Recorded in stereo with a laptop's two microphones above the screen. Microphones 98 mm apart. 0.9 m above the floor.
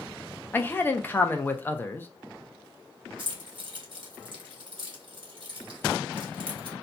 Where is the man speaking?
20° left (ahead or behind), 0.6 m.